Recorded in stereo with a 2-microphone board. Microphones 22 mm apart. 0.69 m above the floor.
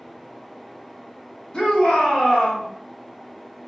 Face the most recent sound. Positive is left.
turn(degrees=60)  # may be behind; listen again after turning